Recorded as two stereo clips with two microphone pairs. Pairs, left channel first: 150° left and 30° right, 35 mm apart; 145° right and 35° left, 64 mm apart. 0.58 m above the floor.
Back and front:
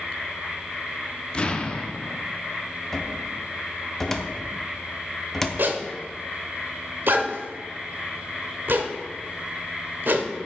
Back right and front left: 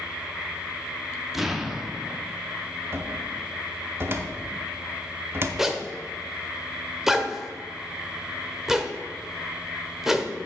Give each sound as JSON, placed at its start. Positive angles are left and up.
{"t": 1.3, "sound": "an explosion", "azimuth_deg": 120, "distance_m": 0.6}
{"t": 2.9, "sound": "a cupboard door", "azimuth_deg": 80, "distance_m": 0.7}
{"t": 5.6, "sound": "a zipper", "azimuth_deg": -50, "distance_m": 0.8}